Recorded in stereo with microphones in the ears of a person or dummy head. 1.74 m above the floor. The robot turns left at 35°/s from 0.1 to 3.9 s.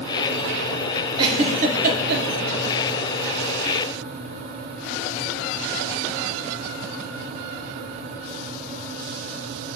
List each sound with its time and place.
1.2 s a giggle: 30° right (ahead or behind), 1.1 m; by 2.2 s 65° right (ahead or behind), 1.1 m